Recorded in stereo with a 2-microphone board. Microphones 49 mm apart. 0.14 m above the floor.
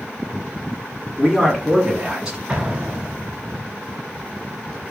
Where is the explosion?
15° right (ahead or behind), 1.1 m.